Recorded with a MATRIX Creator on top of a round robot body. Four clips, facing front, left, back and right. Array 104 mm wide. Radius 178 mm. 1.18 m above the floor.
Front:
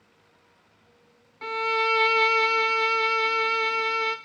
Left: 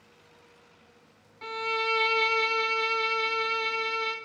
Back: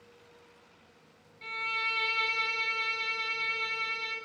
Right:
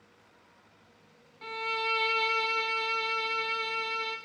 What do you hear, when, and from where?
1.4 s a violin: 10° left, 0.6 m